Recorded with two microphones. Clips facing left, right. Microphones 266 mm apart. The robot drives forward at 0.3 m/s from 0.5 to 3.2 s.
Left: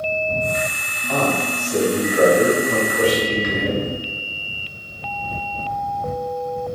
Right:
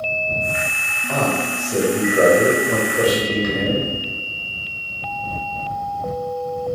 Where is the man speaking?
40° right (ahead or behind), 1.9 m.